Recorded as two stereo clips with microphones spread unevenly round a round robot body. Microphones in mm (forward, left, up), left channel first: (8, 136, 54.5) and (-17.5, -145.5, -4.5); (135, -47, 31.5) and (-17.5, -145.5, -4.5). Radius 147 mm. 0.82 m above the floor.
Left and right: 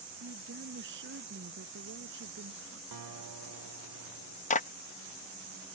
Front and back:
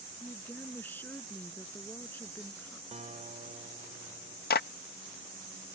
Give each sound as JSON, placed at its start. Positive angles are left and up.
{"t": 0.2, "sound": "a woman speaking", "azimuth_deg": -45}
{"t": 2.9, "sound": "a guitar", "azimuth_deg": -95}
{"t": 4.5, "sound": "a clap", "azimuth_deg": 20}